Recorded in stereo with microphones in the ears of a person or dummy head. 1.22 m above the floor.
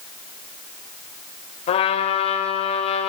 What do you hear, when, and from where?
1.7 s a trumpet: 30° left (ahead or behind), 2 m